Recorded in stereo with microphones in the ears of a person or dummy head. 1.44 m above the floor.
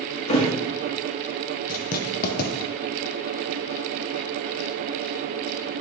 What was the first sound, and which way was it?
A thud, 30° left (ahead or behind).